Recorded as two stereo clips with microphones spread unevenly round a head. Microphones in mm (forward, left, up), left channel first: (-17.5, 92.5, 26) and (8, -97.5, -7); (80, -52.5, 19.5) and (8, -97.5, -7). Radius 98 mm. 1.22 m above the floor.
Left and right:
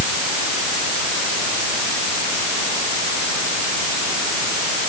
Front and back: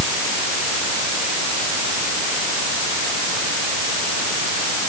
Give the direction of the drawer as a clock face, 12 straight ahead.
I don't hear a drawer.